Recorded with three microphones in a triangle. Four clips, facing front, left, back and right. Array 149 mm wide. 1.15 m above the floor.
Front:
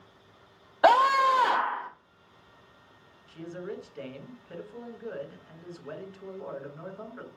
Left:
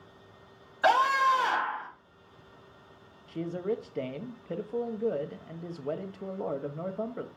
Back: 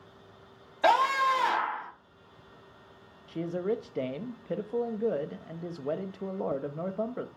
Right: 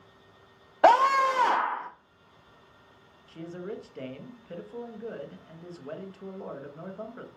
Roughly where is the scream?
Right.